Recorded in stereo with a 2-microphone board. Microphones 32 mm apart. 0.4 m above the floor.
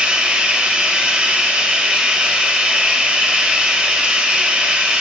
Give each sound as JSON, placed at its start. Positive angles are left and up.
{"t": 0.0, "sound": "running water", "side_deg": -35, "distance_m": 0.8}